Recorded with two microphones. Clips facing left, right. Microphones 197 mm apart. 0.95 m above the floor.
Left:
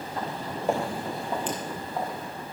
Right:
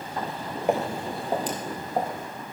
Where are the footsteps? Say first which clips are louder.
Right 2 dB; 15° right (ahead or behind), 1.5 m; by 2.3 s 50° right (ahead or behind), 3 m.